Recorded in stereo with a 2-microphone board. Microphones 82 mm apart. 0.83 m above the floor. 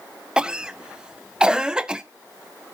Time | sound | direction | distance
0.4 | a cough | 10° right (ahead or behind) | 0.7 m